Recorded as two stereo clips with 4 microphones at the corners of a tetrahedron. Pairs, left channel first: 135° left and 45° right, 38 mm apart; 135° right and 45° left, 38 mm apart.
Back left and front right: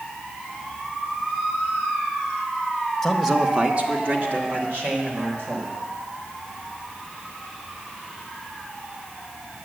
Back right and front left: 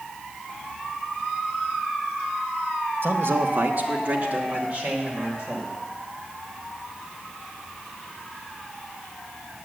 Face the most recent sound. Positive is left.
turn(degrees=-20)